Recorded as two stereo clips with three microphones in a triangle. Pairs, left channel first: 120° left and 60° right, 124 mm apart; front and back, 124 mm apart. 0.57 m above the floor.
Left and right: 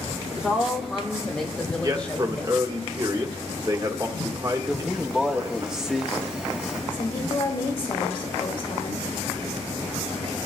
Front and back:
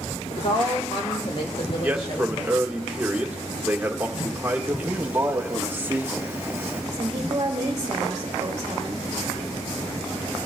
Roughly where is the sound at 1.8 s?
Right.